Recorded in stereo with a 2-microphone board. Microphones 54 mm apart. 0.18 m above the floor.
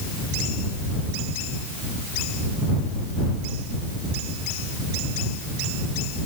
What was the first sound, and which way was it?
Only background noise.